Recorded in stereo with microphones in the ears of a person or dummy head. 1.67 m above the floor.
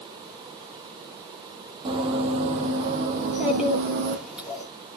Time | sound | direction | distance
1.9 | running footsteps | 30° right (ahead or behind) | 2.5 m
3.2 | a child speaking | 5° right (ahead or behind) | 2.5 m